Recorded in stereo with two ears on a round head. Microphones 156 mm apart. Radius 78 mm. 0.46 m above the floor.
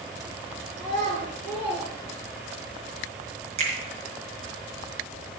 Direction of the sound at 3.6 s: 40° right (ahead or behind).